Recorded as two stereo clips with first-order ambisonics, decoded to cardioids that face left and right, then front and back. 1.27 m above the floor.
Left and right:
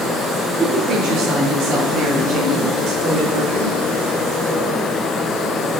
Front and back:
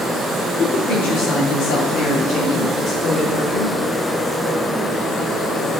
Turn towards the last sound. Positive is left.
turn(degrees=-50)